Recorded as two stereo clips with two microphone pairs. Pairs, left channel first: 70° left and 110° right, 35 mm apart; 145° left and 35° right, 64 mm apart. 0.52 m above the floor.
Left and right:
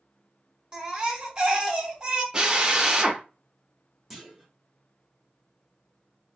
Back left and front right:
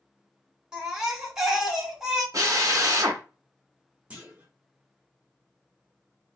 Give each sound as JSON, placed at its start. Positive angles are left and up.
{"t": 0.7, "sound": "a baby crying", "azimuth_deg": -100, "distance_m": 0.7}
{"t": 2.3, "sound": "a drill", "azimuth_deg": -45, "distance_m": 0.5}
{"t": 4.1, "sound": "a clunk", "azimuth_deg": -25, "distance_m": 0.8}